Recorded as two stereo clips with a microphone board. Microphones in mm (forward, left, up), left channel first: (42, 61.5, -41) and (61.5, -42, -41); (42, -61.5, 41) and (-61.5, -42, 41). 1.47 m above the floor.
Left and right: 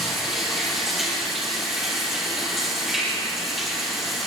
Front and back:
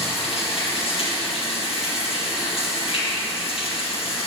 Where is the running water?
10° left, 3.5 m.